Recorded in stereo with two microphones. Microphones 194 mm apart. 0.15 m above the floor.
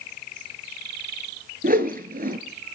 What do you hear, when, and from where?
1.6 s a whoosh: 50° right (ahead or behind), 1.1 m